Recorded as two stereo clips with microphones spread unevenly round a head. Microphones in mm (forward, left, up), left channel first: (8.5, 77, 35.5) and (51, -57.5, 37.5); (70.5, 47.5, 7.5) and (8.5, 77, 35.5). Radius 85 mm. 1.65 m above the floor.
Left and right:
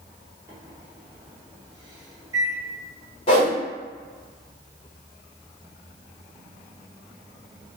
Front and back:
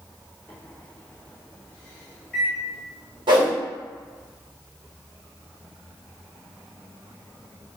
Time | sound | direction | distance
0.5 | a microwave | 130° right | 0.7 m
3.3 | a whoosh | 165° left | 0.9 m